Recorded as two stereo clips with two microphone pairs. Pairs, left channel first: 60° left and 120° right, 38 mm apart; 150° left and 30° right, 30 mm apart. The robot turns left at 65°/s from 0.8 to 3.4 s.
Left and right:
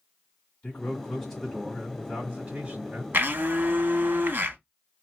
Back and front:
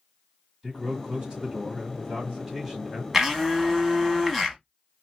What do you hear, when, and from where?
0.6 s a man speaking: 10° left, 1.6 m; by 3.0 s 135° right, 1.6 m
3.1 s a blender: 105° right, 0.7 m; by 4.6 s 120° right, 0.7 m